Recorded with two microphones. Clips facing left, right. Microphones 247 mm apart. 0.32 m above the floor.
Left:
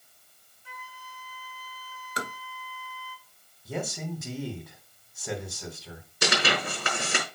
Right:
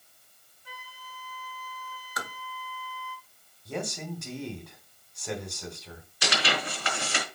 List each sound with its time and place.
0.7 s a flute: 45° right (ahead or behind), 1.6 m
2.2 s tapping: 30° left (ahead or behind), 0.8 m
3.6 s a man speaking: 5° left (ahead or behind), 2 m
6.2 s tearing paper: 50° left (ahead or behind), 5 m